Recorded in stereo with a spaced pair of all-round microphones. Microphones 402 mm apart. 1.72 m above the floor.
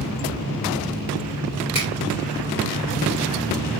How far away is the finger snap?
About 3.5 m.